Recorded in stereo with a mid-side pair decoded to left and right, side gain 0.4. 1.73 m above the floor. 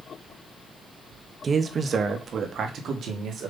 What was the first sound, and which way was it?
A man speaking, 45° right.